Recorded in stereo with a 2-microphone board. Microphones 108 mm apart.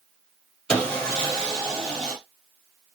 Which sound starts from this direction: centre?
Sawing, at 0.7 s.